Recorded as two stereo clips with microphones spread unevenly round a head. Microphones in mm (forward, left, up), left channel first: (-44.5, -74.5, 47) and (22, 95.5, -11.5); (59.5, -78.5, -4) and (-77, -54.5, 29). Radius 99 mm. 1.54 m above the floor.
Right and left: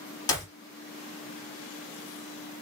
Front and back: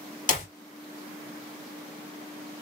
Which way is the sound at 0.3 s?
45° right.